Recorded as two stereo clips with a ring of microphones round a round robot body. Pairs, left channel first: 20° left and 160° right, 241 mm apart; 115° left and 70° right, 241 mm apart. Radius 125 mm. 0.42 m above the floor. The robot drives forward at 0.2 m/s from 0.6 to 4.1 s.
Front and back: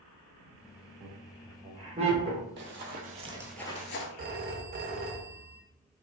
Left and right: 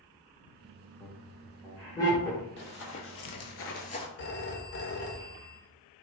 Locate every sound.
1.0 s laughter: 165° left, 1.3 m; by 2.5 s 175° left, 1.4 m
2.6 s running footsteps: 160° left, 1.1 m; by 4.1 s 45° left, 0.6 m
4.2 s a phone ringing: 150° left, 0.6 m